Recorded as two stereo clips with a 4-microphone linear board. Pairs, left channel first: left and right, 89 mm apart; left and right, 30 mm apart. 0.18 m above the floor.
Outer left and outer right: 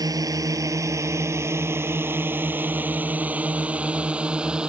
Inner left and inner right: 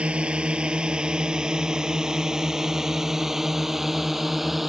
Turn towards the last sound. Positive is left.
turn(degrees=-10)  # may be behind; listen again after turning